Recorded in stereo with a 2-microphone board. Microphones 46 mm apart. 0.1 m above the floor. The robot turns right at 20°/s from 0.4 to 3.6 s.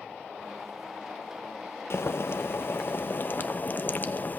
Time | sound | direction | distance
1.9 | boiling | 100° left | 0.6 m